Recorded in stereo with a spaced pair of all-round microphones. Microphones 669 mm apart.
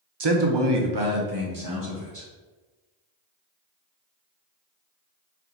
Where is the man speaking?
40° right (ahead or behind), 0.5 m; by 2.3 s 25° right (ahead or behind), 1.4 m.